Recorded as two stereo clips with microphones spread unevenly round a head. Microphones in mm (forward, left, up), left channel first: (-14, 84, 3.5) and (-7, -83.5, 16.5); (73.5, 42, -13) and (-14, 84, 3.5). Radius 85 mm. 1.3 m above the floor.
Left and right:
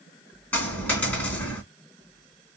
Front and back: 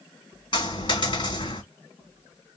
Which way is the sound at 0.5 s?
10° left.